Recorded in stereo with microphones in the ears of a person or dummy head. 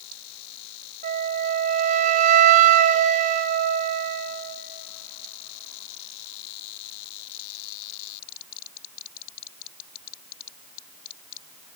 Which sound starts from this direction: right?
A flute, at 1.0 s.